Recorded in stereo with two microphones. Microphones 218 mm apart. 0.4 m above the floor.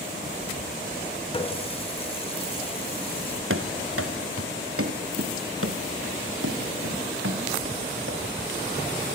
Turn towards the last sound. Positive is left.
turn(degrees=-65)  # may be behind; listen again after turning